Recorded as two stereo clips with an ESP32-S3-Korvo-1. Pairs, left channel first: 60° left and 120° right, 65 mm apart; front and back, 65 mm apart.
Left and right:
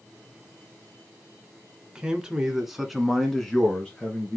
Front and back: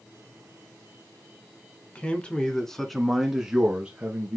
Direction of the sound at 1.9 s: 55° right.